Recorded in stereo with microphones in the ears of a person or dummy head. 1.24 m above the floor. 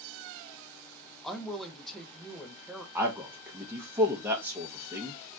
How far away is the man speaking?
About 0.7 m.